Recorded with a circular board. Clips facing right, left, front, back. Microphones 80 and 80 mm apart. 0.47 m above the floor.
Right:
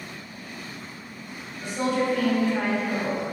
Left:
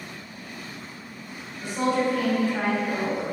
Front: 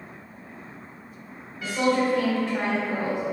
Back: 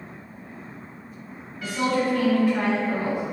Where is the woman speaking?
55° left, 1.7 m.